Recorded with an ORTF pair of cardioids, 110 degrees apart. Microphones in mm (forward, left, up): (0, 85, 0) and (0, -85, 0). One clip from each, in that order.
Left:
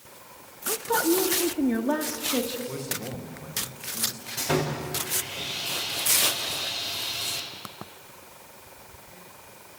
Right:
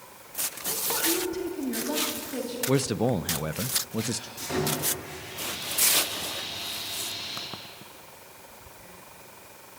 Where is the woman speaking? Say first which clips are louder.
Left 5 dB; 50° left, 1.7 m; by 2.6 s 40° left, 3.5 m.